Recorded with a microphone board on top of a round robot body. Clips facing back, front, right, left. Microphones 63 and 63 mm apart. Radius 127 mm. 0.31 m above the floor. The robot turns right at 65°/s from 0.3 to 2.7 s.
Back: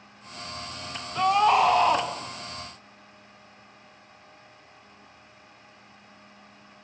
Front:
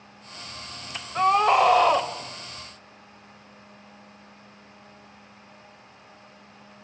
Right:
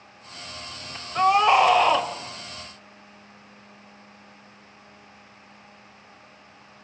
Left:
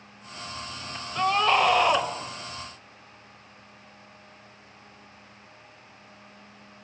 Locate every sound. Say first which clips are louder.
1.1 s a scream: front 1 dB, right 5 dB; 40° right, 2.5 m; by 2.1 s 20° left, 2.5 m